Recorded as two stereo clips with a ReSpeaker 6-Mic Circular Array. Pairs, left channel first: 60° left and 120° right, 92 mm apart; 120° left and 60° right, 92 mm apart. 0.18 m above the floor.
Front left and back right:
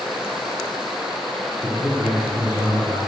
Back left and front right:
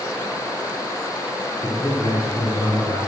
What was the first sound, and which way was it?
A man speaking, 165° right.